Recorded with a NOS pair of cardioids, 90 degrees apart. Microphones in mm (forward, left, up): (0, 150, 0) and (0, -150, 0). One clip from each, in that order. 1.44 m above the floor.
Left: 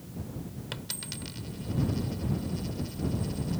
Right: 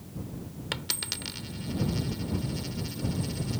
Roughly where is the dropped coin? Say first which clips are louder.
Right 7 dB; ahead right.